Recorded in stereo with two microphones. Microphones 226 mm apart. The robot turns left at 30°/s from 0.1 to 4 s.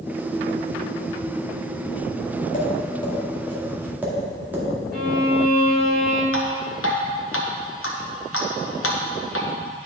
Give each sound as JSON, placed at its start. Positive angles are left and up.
{"t": 2.5, "sound": "tapping", "side_deg": 35, "distance_m": 1.8}
{"t": 4.9, "sound": "a violin", "side_deg": -45, "distance_m": 1.3}
{"t": 6.3, "sound": "dripping", "side_deg": 70, "distance_m": 1.1}